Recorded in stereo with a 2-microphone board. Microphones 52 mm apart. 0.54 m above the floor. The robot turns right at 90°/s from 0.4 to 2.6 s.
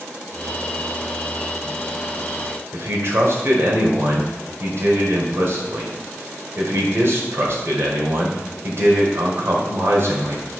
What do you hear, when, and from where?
2.7 s a man speaking: 55° right (ahead or behind), 2 m